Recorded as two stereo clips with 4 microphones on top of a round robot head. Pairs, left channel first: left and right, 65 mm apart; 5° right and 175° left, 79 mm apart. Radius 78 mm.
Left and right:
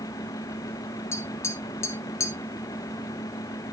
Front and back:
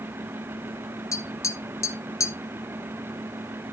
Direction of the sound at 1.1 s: 45° left.